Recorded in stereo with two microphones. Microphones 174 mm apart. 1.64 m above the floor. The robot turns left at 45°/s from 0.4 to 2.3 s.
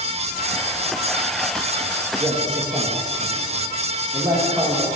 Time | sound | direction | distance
2.2 | a man speaking | 15° right (ahead or behind) | 1.6 m